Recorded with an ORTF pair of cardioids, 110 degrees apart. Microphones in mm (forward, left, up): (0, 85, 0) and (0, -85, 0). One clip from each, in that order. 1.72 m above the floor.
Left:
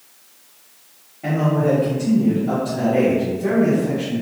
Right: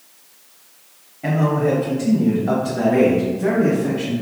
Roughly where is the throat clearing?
I don't hear throat clearing.